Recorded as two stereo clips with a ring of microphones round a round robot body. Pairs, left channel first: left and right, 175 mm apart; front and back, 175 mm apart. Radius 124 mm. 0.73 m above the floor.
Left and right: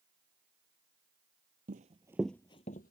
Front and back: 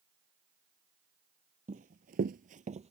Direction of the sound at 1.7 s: 130° right.